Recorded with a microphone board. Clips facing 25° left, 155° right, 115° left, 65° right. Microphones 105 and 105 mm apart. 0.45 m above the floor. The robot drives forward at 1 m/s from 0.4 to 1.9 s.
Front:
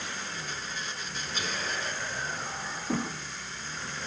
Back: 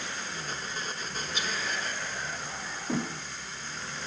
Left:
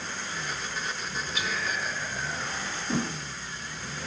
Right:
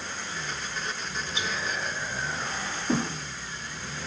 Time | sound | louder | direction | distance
1.4 | whispering | even, even | 15° right | 1.8 m
2.9 | a thud | even, right 3 dB | 95° right | 6.5 m